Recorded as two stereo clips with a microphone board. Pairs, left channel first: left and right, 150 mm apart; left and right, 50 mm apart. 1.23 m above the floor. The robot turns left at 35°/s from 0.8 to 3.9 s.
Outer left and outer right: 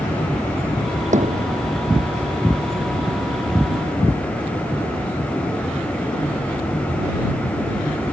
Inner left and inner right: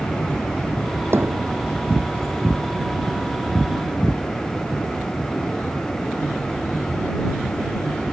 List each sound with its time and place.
1.1 s hammering: 55° right (ahead or behind); by 1.6 s 75° right (ahead or behind)